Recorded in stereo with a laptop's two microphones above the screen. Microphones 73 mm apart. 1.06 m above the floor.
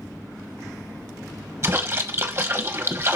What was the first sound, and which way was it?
A splash, 35° right (ahead or behind).